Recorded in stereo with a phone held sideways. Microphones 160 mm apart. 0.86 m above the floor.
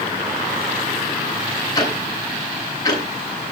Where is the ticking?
20° left (ahead or behind), 6.5 m.